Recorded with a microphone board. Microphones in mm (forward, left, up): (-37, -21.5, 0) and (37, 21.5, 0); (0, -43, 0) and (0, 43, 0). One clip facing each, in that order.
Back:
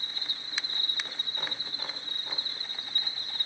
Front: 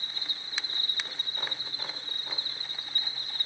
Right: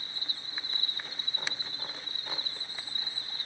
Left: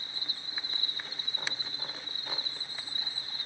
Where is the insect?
155° left, 2 m.